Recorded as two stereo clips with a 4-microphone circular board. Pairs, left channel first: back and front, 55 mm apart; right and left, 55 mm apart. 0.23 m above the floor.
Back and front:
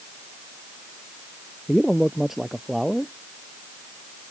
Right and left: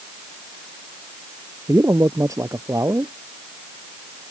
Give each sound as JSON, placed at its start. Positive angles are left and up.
{"t": 1.7, "sound": "a man speaking", "azimuth_deg": 85}